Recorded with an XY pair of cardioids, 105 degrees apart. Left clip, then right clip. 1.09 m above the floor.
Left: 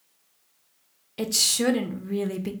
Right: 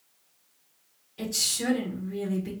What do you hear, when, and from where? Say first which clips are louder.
1.2 s a woman speaking: left 5 dB; 65° left, 1.0 m